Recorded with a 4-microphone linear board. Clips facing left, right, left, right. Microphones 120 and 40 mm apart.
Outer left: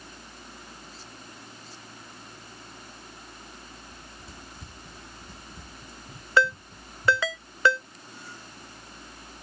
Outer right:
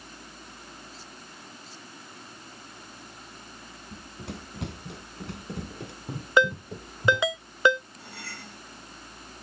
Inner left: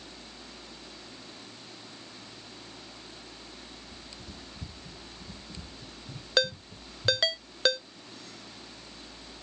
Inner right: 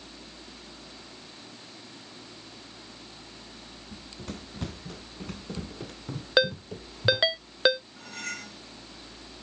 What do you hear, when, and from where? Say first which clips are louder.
3.9 s running footsteps: outer right 6 dB, inner right 5 dB; 70° right (ahead or behind)
6.4 s a ringtone: outer right 1 dB, inner right 4 dB; 20° right (ahead or behind)
8.0 s cutlery clinking: outer right 2 dB, inner right 9 dB; 80° right